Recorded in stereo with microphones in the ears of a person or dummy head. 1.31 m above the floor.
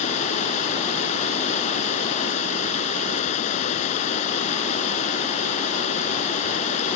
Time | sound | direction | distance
0.0 | running water | 40° left (ahead or behind) | ?